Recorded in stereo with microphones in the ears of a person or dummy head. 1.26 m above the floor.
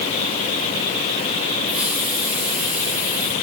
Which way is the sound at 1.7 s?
5° right (ahead or behind).